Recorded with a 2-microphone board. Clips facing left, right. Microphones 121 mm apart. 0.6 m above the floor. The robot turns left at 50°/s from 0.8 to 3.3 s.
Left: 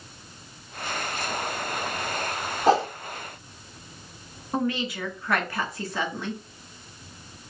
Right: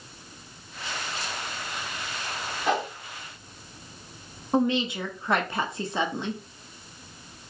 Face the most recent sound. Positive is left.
turn(degrees=-20)  # may be behind; listen again after turning